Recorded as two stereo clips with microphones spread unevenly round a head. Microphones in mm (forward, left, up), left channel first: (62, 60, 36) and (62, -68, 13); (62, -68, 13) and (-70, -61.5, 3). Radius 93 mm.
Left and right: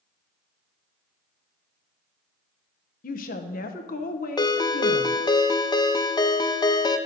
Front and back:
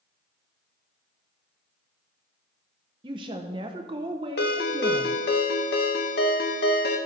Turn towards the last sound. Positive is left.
turn(degrees=25)